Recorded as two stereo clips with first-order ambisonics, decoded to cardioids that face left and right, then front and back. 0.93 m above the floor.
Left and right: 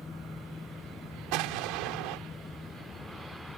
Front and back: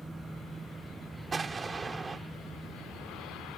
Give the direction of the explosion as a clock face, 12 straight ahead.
4 o'clock.